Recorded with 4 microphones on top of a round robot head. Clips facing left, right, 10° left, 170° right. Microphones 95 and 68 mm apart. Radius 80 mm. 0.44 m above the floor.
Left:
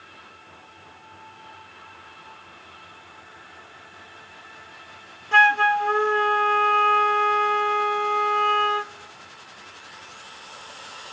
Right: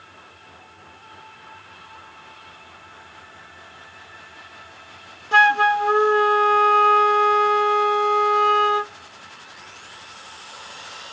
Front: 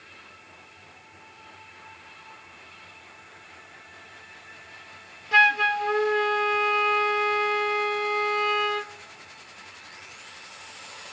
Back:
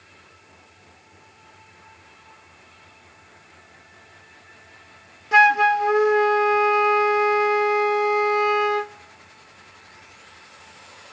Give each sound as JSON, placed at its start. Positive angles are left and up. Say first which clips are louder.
{"t": 5.3, "sound": "a flute", "louder": "right 2 dB, back 5 dB", "azimuth_deg": -135, "distance_m": 0.7}